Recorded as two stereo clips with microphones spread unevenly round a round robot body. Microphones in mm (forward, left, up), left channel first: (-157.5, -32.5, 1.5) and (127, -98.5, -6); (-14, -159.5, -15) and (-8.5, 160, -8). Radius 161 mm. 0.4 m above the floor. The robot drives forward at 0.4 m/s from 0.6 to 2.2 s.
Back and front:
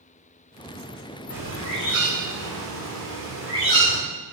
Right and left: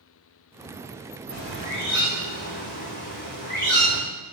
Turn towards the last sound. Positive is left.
turn(degrees=-150)